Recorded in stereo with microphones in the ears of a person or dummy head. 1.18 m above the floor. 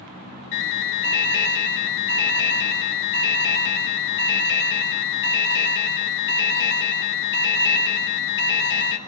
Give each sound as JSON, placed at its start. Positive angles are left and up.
{"t": 0.5, "sound": "an alarm", "side_deg": 65, "distance_m": 4.0}